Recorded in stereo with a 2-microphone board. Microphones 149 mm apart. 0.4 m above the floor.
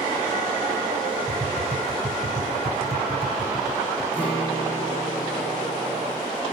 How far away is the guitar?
About 5.5 m.